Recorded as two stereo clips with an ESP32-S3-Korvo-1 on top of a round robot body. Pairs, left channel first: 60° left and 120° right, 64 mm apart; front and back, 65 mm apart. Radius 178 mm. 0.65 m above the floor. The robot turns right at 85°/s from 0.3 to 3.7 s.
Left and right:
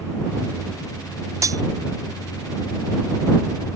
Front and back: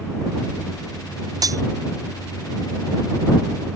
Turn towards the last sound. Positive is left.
turn(degrees=35)